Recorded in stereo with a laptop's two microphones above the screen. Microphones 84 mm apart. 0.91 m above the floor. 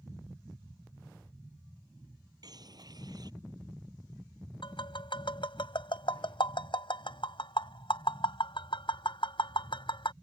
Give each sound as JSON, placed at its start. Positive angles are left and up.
{"t": 2.4, "sound": "a bird", "side_deg": -55}
{"t": 4.6, "sound": "tapping", "side_deg": 85}